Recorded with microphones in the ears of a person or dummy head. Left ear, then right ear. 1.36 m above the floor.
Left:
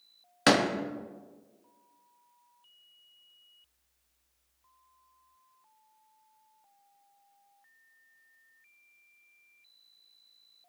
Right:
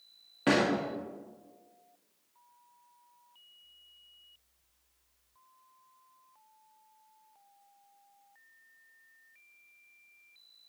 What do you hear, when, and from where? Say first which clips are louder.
0.5 s a door slam: left 3 dB; 65° left (ahead or behind), 1.3 m